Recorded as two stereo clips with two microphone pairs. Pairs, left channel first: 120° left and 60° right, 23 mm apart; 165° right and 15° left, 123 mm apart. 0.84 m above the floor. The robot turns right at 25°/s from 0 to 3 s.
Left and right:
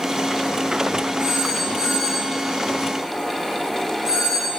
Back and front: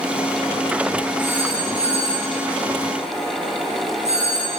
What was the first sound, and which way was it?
A phone ringing, 35° right.